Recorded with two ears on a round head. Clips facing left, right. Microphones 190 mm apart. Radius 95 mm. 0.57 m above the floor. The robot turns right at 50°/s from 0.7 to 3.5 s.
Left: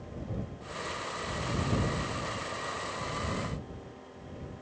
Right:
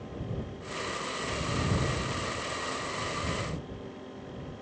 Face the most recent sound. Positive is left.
No sound to turn to.